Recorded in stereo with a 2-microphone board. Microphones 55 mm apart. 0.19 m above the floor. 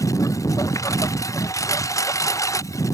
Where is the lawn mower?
85° left; by 2.9 s 80° left.